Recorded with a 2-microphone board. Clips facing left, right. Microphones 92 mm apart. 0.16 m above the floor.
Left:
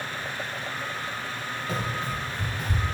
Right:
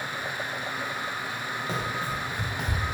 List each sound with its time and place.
1.7 s running footsteps: 20° right (ahead or behind), 0.9 m; by 2.8 s 60° right (ahead or behind), 0.6 m